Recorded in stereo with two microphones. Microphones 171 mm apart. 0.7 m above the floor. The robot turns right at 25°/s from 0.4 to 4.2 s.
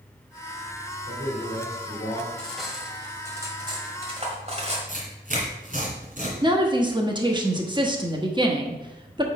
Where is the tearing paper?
50° right (ahead or behind), 2 m.